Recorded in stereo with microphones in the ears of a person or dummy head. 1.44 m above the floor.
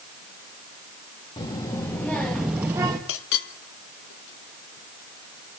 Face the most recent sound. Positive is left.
turn(degrees=65)  # may be behind; listen again after turning